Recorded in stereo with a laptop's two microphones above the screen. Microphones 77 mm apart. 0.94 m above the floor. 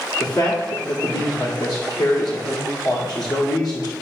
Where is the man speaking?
60° left (ahead or behind), 2 m.